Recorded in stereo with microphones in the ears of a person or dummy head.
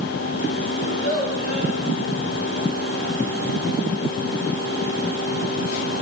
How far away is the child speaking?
About 6 m.